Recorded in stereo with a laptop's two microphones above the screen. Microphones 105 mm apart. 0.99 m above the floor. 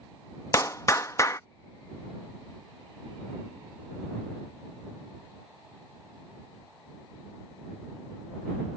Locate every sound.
0.5 s a clap: 30° left (ahead or behind)